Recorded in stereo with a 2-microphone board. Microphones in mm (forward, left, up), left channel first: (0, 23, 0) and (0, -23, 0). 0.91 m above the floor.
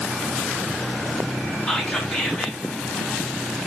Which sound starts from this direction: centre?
Whispering, at 1.7 s.